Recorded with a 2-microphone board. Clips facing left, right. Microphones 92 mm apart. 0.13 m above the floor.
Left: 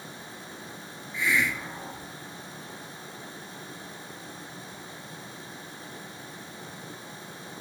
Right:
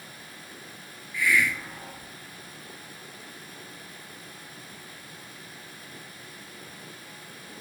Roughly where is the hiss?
Left.